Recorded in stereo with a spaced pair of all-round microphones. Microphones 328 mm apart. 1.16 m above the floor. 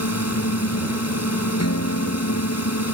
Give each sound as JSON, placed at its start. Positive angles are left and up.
{"t": 0.0, "sound": "a drone", "side_deg": 50}
{"t": 1.6, "sound": "a guitar", "side_deg": 50}